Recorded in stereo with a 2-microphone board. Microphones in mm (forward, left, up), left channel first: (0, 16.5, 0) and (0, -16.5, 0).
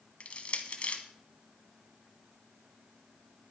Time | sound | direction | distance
0.2 | crushing | 40° left (ahead or behind) | 1.5 m